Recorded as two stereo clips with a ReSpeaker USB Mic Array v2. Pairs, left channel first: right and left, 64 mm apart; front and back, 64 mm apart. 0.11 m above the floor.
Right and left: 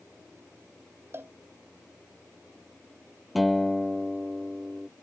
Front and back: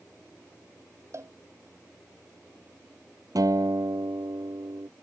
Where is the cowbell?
140° left.